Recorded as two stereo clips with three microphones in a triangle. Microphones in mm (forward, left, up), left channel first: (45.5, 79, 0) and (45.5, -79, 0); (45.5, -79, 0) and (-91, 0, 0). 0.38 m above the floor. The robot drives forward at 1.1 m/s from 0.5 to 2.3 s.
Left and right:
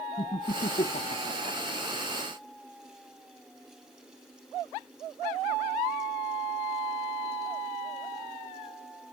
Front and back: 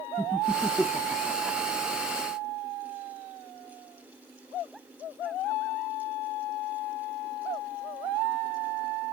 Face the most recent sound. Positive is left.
turn(degrees=90)